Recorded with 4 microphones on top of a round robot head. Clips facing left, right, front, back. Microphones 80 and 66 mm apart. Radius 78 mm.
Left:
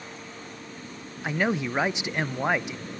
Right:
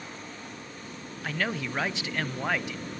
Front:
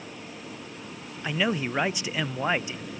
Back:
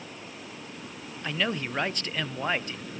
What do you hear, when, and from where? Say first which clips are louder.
1.2 s a man speaking: left 5 dB, front 3 dB; 60° left, 0.6 m